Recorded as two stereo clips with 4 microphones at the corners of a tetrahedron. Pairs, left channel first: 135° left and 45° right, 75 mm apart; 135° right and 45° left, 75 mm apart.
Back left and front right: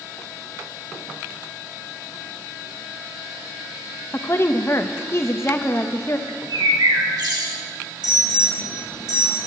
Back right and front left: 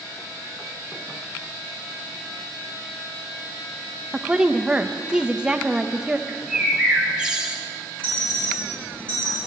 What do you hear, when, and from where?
4.1 s a woman speaking: 120° left, 0.7 m
6.3 s a bird: 30° right, 1.8 m
8.0 s an alarm: 60° right, 4.5 m